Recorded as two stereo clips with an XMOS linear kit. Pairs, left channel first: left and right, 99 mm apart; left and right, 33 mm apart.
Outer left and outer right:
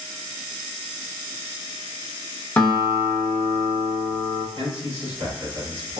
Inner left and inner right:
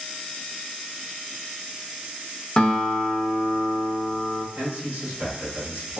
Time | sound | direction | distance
2.6 | a guitar | 15° left (ahead or behind) | 0.9 m
4.5 | a man speaking | 85° right | 1.6 m